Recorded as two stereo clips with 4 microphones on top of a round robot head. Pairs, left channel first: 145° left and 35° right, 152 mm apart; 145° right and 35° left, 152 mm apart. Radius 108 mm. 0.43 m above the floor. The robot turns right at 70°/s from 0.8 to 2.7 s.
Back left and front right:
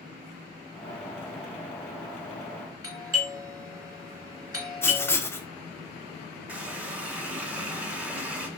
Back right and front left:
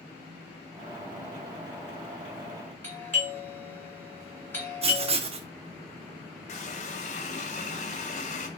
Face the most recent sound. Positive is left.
turn(degrees=-115)